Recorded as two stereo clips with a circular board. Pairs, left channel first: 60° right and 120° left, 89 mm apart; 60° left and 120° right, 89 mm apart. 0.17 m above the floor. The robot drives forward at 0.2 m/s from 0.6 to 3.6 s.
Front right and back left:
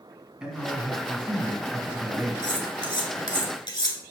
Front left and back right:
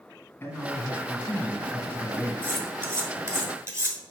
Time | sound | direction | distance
0.4 | a man speaking | 50° left | 1.5 m
2.4 | cutlery clinking | 60° right | 1.4 m